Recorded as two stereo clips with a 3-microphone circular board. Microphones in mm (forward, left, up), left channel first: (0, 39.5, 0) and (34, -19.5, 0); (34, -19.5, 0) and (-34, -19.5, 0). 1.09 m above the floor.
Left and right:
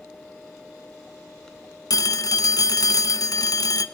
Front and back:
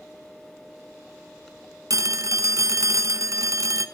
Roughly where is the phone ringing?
Behind left.